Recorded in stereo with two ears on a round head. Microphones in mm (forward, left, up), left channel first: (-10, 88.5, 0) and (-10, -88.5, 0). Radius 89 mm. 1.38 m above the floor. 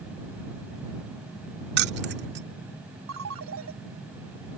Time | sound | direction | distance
1.8 | keys jangling | 55° right (ahead or behind) | ?
3.1 | a ringtone | 85° right | ?